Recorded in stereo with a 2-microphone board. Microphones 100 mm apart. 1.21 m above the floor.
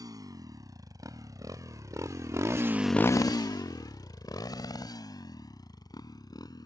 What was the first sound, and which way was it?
A motorcycle, 35° right (ahead or behind).